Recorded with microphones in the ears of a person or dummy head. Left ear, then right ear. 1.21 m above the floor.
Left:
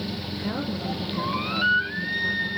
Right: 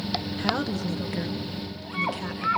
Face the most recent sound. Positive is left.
turn(degrees=-50)  # may be behind; listen again after turning